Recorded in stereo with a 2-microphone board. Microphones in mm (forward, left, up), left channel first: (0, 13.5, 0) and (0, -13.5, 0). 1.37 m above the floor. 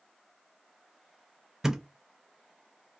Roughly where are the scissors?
No scissors in this recording.